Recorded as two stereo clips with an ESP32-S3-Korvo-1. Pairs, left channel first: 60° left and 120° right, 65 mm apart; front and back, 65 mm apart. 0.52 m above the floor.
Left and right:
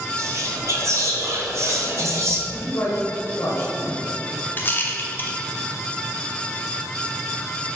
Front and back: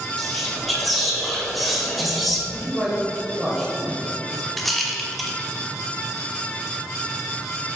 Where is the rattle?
85° left, 1.0 m.